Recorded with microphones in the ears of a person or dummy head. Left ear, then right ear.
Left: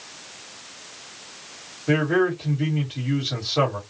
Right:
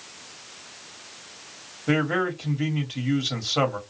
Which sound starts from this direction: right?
A man speaking, at 1.9 s.